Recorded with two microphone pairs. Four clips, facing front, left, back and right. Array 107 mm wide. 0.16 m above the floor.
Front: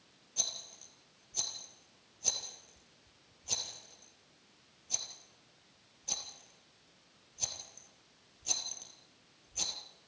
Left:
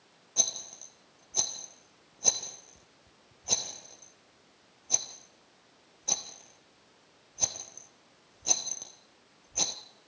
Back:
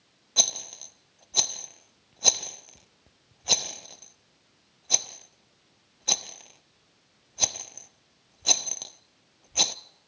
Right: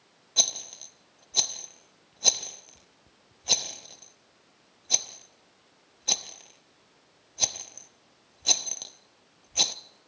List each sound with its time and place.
0.4 s a rattle: 165° right, 0.8 m